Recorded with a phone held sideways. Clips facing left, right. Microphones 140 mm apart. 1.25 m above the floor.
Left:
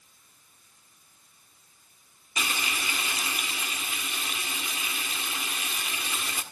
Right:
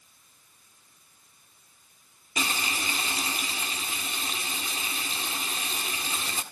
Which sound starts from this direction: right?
Frying, at 2.4 s.